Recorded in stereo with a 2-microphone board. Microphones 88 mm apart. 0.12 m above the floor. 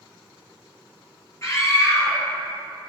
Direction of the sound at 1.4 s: 35° left (ahead or behind).